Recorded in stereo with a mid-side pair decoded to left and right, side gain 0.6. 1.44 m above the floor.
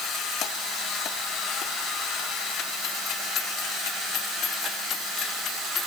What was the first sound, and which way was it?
Only background noise.